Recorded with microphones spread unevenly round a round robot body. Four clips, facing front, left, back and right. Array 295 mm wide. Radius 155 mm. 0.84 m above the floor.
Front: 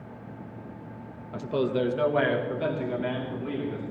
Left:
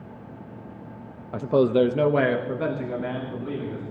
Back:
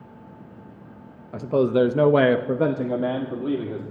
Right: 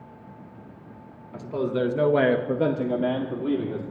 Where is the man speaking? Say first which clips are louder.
Left 7 dB, back 7 dB; 105° left, 1.0 m; by 3.8 s 140° right, 2.5 m.